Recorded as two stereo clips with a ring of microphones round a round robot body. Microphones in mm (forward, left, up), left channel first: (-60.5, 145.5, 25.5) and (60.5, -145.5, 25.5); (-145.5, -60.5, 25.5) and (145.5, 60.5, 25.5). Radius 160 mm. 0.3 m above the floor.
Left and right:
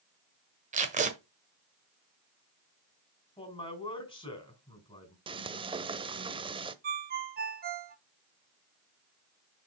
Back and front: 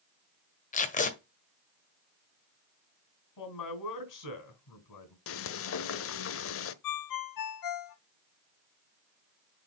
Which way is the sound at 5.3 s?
135° right.